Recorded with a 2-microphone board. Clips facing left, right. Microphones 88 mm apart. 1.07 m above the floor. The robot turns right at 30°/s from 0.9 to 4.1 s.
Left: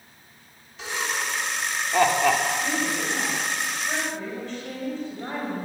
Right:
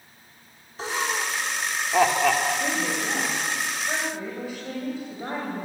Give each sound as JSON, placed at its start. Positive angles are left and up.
{"t": 0.8, "sound": "laughter", "side_deg": -40, "distance_m": 2.5}
{"t": 2.6, "sound": "a woman speaking", "azimuth_deg": -55, "distance_m": 6.5}